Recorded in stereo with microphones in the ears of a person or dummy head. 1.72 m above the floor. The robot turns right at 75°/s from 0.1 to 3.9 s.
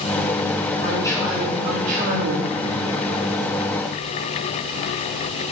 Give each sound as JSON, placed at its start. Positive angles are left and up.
{"t": 0.8, "sound": "a man speaking", "azimuth_deg": 135, "distance_m": 2.5}